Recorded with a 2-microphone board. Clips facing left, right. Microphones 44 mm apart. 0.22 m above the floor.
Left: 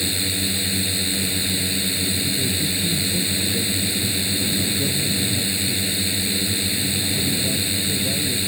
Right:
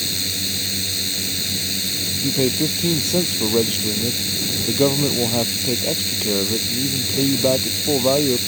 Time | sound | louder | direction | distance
0.0 | a drone | left 2 dB | 15° left (ahead or behind) | ?
2.2 | a man speaking | right 4 dB | 75° right (ahead or behind) | ?